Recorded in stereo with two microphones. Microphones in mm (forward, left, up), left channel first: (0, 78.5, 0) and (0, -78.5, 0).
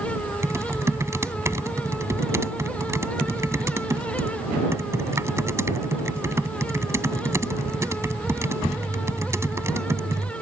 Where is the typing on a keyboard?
20° right (ahead or behind).